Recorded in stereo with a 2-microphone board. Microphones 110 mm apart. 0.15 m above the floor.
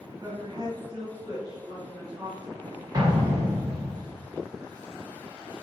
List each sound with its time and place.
0.2 s a woman speaking: 40° right (ahead or behind), 1.8 m; by 2.8 s 15° right (ahead or behind), 2.5 m
2.9 s an explosion: 35° right (ahead or behind), 1.6 m